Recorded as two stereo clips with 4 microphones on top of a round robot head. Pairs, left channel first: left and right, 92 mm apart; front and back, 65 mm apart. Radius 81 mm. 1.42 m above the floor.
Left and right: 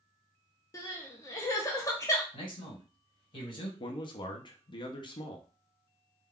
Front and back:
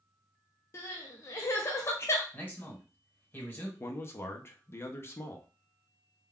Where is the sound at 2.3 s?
65° left, 1.5 m.